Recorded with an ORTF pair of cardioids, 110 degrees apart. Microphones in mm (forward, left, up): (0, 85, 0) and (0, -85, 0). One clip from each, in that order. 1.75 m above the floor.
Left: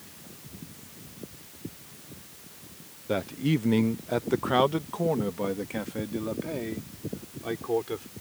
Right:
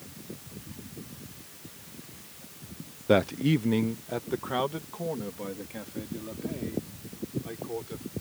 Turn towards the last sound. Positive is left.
turn(degrees=55)